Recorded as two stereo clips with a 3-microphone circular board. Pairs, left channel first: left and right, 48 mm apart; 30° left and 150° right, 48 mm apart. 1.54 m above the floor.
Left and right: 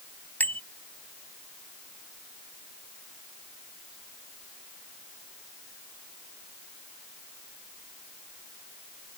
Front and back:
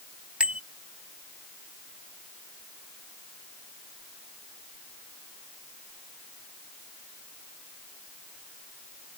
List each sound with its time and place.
0.4 s a bicycle bell: 145° left